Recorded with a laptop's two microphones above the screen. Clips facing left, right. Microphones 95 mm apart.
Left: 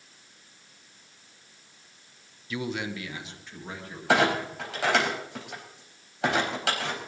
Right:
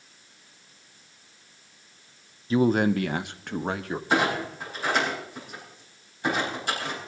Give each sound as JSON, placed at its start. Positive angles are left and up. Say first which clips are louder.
{"t": 2.5, "sound": "a man speaking", "louder": "right 11 dB", "side_deg": -30, "distance_m": 0.6}
{"t": 4.1, "sound": "a clunk", "louder": "left 2 dB", "side_deg": 85, "distance_m": 4.0}